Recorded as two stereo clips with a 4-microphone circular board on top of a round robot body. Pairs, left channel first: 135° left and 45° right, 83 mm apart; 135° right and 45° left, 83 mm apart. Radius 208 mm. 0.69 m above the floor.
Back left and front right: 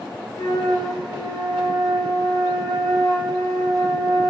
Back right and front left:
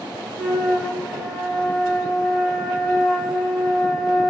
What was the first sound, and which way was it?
A flute, 40° right.